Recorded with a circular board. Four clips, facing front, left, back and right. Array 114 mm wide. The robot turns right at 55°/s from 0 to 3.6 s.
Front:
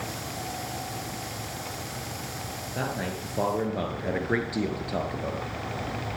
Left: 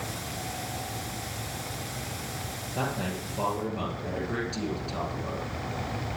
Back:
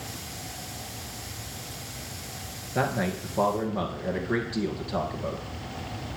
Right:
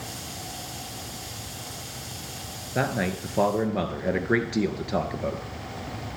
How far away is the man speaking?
About 1.9 m.